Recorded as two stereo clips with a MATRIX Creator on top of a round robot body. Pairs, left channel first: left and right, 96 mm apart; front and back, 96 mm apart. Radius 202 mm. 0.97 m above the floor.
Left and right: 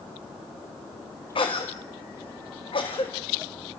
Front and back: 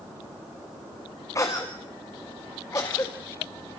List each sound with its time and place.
1.4 s a cough: 60° left, 2 m